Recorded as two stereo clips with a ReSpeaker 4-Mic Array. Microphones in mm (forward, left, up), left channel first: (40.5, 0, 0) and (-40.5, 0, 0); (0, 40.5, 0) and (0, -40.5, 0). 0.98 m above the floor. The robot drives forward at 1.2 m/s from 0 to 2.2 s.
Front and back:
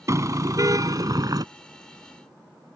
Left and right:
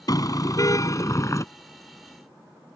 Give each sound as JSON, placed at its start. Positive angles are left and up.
{"t": 0.1, "sound": "a car horn", "azimuth_deg": 130}